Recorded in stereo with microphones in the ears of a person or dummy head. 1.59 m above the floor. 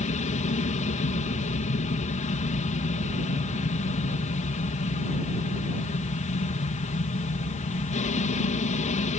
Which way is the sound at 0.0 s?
35° left (ahead or behind).